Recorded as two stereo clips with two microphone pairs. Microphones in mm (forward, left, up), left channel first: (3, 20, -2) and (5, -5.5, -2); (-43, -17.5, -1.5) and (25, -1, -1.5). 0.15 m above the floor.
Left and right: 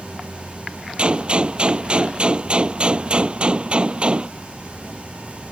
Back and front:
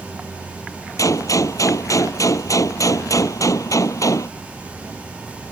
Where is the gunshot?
130° right.